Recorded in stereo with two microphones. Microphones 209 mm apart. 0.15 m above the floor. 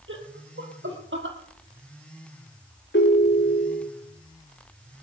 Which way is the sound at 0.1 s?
70° right (ahead or behind).